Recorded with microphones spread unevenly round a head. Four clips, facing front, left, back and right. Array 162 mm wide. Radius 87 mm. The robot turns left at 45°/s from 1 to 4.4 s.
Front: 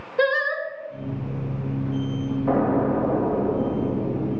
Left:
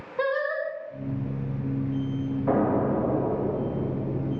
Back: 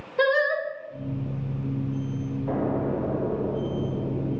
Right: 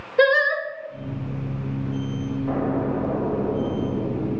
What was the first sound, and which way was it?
Singing, 105° right.